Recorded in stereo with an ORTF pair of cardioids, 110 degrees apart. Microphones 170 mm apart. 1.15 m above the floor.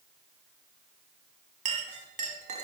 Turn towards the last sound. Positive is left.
turn(degrees=-45)